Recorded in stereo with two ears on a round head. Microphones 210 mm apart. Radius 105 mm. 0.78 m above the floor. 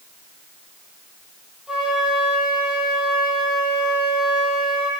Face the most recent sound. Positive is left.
turn(degrees=0)  # may be behind; listen again after turning